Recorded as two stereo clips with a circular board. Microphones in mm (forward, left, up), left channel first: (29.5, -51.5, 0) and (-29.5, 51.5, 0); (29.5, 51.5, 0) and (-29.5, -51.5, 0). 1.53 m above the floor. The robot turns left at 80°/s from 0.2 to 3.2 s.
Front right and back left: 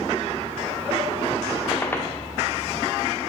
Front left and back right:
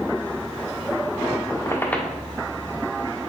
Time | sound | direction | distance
1.5 | a squeak | 30° left | 1.2 m